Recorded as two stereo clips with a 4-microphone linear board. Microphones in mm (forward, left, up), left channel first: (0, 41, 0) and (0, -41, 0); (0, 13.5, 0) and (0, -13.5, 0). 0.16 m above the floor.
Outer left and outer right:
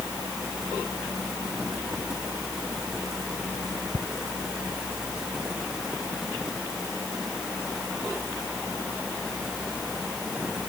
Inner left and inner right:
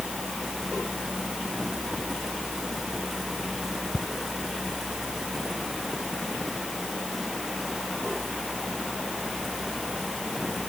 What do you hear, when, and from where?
3.9 s ticking: 75° right (ahead or behind)